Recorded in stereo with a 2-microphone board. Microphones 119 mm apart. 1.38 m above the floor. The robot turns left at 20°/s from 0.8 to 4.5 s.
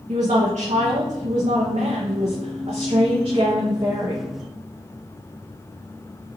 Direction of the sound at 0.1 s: 80° right.